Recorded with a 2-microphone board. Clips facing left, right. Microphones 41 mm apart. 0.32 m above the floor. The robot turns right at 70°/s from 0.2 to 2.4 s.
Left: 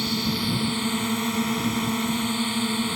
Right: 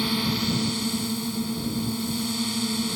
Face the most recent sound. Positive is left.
turn(degrees=145)